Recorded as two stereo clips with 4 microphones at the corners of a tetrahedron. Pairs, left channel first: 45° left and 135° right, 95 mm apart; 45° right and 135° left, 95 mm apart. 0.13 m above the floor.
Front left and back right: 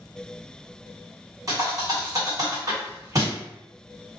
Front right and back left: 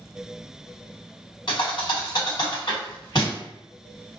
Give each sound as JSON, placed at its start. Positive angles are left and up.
{"t": 1.5, "sound": "a thud", "azimuth_deg": -85, "distance_m": 1.8}